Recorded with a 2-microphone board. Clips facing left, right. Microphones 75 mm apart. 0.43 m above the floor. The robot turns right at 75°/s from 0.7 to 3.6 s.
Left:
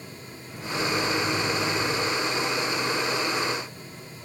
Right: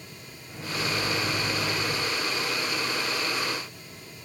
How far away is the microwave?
About 1.2 m.